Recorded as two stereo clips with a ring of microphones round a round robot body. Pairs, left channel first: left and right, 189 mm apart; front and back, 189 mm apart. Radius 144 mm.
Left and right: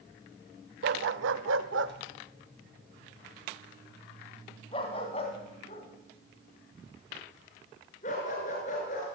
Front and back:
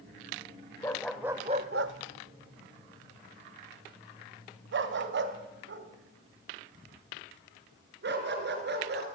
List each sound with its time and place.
0.8 s a dog barking: 80° right, 0.7 m; by 9.1 s 155° left, 4 m